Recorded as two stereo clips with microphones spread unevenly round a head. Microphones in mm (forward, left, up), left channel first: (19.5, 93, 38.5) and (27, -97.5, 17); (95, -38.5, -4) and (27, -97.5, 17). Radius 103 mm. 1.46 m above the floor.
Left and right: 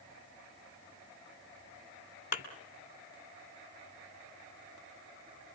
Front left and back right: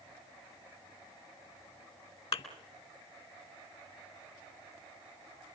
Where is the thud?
55° left, 2.5 m.